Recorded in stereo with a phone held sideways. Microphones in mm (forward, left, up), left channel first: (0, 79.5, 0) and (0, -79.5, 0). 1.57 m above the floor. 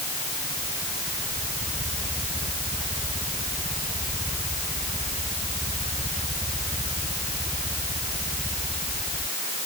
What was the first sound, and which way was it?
Only background noise.